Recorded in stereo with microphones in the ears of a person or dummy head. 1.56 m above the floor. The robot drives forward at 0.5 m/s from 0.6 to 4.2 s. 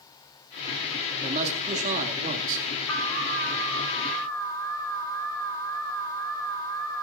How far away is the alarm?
About 3 m.